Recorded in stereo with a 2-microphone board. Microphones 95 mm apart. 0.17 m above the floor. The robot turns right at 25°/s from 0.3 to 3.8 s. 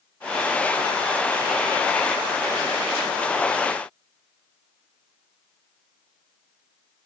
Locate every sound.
Only background noise.